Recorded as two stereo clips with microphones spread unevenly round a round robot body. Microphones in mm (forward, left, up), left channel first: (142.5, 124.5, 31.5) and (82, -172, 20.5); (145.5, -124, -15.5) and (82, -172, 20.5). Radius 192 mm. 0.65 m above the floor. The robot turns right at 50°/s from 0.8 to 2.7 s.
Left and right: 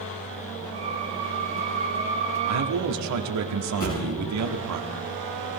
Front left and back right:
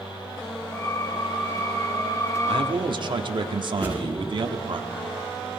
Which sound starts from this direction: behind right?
A man speaking, at 2.5 s.